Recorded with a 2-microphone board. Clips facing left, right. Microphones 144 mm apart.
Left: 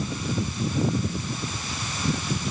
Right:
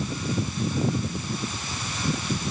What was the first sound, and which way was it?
Only background noise.